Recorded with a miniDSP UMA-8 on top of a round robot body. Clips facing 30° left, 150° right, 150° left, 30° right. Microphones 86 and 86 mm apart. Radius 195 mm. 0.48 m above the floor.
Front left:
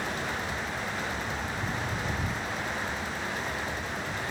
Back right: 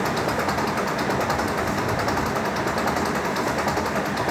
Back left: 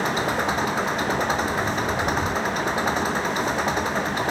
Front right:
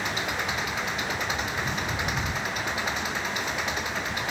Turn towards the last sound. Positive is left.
turn(degrees=-155)